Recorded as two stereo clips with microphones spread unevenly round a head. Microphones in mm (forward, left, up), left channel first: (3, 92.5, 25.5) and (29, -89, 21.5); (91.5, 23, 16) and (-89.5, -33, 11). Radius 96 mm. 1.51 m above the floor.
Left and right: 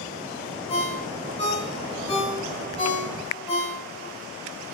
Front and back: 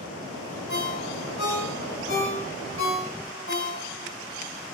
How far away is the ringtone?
About 2.5 m.